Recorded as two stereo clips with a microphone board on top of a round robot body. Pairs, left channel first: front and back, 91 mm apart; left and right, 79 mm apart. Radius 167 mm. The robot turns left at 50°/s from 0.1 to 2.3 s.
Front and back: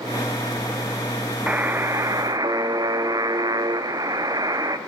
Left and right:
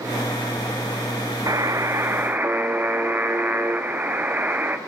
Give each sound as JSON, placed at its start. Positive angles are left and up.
{"t": 1.5, "sound": "a buzzer", "azimuth_deg": -110, "distance_m": 1.0}